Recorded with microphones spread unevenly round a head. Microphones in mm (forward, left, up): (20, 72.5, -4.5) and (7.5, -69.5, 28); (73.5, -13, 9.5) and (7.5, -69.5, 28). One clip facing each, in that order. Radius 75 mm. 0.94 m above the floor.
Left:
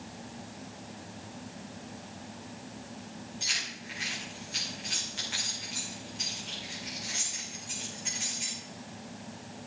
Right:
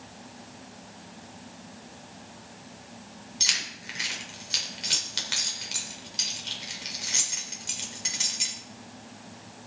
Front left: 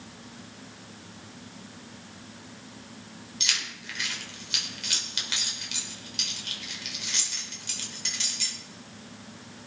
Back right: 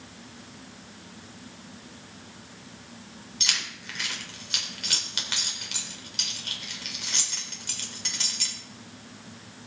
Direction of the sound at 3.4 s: 100° right.